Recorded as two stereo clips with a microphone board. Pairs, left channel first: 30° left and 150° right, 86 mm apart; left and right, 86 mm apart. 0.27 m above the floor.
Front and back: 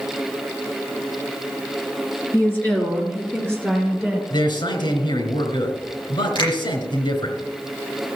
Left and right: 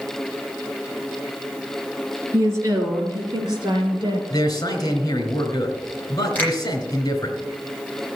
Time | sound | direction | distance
2.3 | a woman speaking | 35° right | 3.5 m
4.3 | a man speaking | 45° left | 3.5 m
6.3 | a finger snap | 20° left | 8 m